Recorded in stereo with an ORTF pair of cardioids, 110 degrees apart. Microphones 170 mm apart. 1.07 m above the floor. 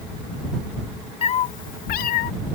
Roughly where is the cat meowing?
Ahead left.